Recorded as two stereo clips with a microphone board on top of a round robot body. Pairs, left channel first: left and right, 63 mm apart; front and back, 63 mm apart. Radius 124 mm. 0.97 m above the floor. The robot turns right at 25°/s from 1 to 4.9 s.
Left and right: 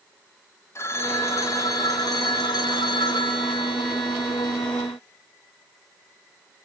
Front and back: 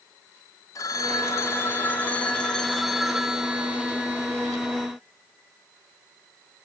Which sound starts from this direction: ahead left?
A phone ringing, at 0.8 s.